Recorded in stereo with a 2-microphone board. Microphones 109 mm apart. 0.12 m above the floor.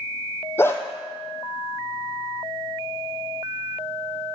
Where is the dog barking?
20° left (ahead or behind), 1.0 m.